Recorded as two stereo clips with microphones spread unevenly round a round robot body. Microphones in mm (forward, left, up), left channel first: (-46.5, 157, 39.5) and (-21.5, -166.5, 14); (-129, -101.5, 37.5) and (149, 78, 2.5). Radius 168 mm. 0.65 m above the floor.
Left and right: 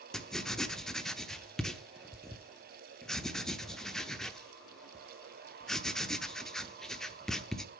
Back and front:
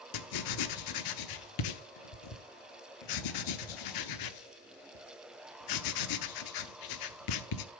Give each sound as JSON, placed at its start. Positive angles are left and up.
{"t": 0.1, "sound": "writing", "azimuth_deg": -175, "distance_m": 1.0}